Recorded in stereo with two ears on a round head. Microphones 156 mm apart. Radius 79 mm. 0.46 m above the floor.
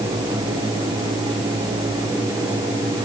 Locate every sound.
Only background noise.